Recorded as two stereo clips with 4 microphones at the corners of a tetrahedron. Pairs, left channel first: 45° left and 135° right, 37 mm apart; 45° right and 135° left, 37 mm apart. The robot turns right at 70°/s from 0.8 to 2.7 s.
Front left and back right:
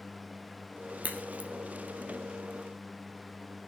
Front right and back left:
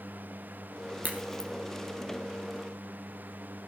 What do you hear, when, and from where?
1.0 s a crack: 175° left, 3 m; by 1.5 s 150° right, 3 m